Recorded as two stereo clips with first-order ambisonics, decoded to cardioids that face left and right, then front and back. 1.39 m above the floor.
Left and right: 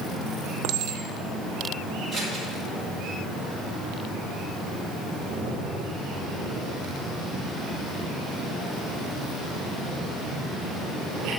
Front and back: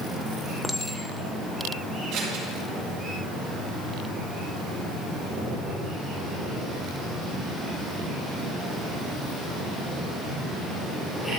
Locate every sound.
0.6 s a clink: 85° right, 0.6 m
2.1 s scissors: 170° left, 3.5 m